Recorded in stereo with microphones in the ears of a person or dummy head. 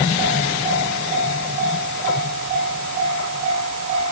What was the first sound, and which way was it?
Only background noise.